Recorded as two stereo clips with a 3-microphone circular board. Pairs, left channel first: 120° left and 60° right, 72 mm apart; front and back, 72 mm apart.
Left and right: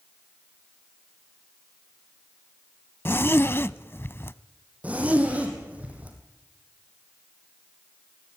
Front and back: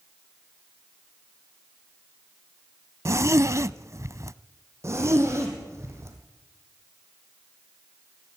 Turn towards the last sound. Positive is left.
turn(degrees=-130)